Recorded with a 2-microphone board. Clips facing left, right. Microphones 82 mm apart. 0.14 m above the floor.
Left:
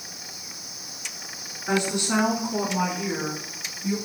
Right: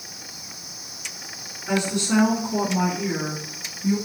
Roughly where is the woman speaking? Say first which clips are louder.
Right 1 dB; left.